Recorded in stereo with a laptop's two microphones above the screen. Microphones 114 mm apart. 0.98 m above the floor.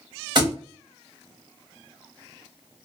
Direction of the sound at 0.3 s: 45° right (ahead or behind).